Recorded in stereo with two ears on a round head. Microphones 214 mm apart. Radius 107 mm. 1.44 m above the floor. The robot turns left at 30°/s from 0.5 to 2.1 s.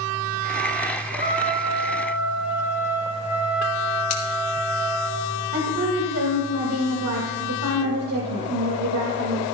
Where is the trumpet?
35° right (ahead or behind), 1.7 m; by 5.1 s 10° right (ahead or behind), 1.7 m.